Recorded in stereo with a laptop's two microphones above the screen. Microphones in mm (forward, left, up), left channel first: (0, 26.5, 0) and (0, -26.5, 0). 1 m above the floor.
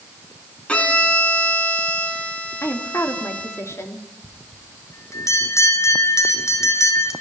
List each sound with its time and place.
0.7 s a violin: 25° left (ahead or behind), 3 m
2.6 s a woman speaking: 55° left (ahead or behind), 2.5 m
4.2 s a bell: 70° left (ahead or behind), 4 m